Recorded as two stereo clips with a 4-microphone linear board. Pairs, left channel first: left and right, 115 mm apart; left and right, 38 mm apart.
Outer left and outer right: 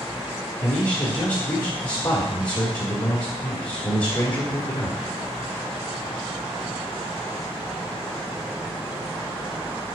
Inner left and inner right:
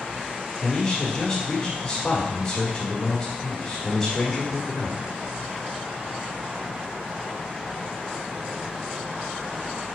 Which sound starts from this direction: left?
A man speaking, at 0.6 s.